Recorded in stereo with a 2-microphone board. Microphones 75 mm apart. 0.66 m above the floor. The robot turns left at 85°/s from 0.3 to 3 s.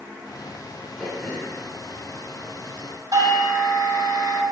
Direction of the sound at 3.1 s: 65° right (ahead or behind).